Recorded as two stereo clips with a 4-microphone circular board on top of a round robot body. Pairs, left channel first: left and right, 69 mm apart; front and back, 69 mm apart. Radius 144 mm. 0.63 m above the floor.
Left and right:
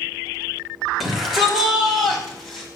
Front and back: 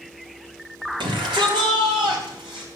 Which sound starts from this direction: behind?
A shout, at 1.0 s.